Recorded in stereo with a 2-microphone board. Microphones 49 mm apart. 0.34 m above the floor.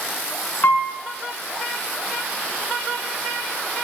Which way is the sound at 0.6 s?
55° left (ahead or behind).